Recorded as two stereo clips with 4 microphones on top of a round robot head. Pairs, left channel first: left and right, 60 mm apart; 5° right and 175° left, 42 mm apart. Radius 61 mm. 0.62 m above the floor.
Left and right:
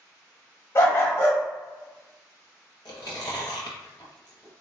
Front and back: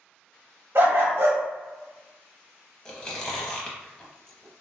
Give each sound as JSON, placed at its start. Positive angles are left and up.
{"t": 0.8, "sound": "a dog barking", "azimuth_deg": 135, "distance_m": 1.2}
{"t": 2.9, "sound": "chewing", "azimuth_deg": 65, "distance_m": 0.5}